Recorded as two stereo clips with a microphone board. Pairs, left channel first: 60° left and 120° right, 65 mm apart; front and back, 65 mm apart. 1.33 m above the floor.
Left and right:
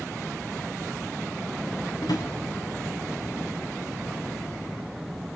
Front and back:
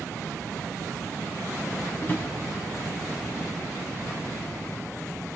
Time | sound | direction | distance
2.0 | a drawer | 60° left | 5 m